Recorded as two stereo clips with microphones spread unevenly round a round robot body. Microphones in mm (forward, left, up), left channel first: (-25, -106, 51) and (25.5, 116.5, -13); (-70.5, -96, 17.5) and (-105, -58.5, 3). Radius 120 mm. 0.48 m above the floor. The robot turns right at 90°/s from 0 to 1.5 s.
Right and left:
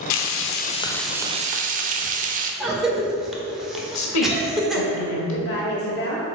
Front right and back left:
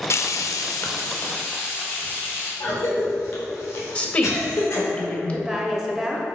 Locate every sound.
0.1 s frying: 90° right, 0.6 m; by 2.5 s 35° left, 0.6 m
2.6 s a cough: straight ahead, 1.3 m
4.0 s a woman speaking: 115° right, 1.8 m
5.3 s a woman speaking: 150° right, 1.9 m